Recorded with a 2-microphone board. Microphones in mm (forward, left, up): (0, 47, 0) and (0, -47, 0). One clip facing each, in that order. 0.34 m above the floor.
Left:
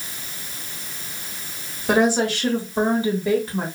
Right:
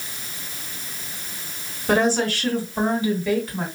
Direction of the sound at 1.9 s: 10° left (ahead or behind).